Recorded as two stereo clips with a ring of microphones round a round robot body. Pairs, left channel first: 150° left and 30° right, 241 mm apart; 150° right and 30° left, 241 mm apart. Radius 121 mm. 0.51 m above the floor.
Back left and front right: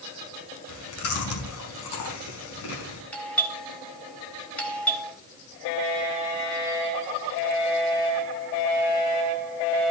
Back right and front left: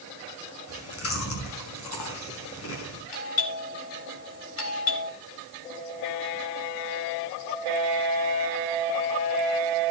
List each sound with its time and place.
0.7 s chewing: straight behind, 4.5 m
3.1 s a doorbell: 125° right, 4.5 m